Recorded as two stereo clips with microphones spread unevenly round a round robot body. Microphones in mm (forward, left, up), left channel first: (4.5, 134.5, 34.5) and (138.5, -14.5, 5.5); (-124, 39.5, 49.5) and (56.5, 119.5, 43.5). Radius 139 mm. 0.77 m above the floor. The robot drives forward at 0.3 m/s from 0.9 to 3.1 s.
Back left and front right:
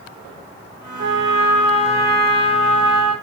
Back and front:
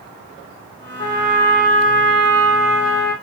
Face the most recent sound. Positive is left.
turn(degrees=-150)